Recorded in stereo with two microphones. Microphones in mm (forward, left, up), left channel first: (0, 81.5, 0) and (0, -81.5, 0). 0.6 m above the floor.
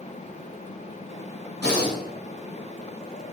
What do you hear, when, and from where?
1.6 s breathing: 80° left, 2 m